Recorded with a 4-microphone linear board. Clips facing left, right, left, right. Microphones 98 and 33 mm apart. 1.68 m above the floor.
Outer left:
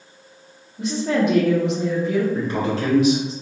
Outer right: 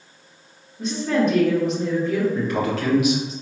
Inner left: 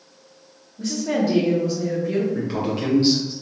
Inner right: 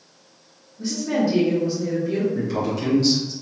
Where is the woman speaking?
80° left, 1.6 m.